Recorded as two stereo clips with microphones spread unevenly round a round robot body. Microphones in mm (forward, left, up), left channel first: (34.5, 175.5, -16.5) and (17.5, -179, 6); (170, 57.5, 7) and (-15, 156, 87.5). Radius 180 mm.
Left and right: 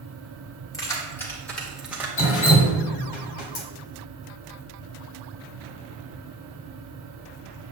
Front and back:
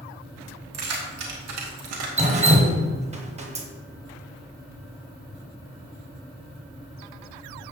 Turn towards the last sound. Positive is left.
turn(degrees=105)